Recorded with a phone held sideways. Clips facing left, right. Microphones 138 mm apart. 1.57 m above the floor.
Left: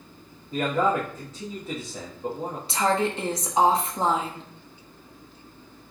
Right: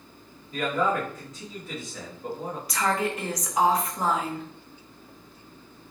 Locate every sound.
0.5 s a man speaking: 30° left (ahead or behind), 1.0 m
2.7 s a woman speaking: 25° left (ahead or behind), 0.9 m